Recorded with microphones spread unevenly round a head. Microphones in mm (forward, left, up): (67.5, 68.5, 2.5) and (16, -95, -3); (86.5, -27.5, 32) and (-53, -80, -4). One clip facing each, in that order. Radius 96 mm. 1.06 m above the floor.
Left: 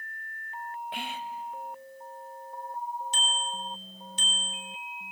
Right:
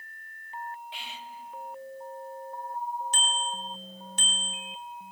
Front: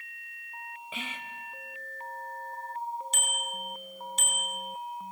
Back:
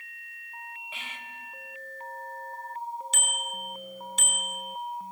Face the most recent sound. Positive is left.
turn(degrees=-160)